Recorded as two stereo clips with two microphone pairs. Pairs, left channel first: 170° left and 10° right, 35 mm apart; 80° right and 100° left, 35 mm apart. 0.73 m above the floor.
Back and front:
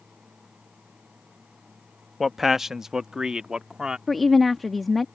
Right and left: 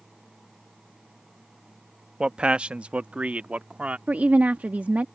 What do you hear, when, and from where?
2.2 s a man speaking: 75° left; by 4.0 s 50° left
4.1 s a woman speaking: 80° left